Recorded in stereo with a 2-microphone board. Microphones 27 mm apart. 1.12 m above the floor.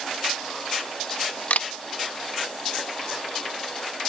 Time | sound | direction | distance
1.5 | a camera shutter | 60° left (ahead or behind) | ?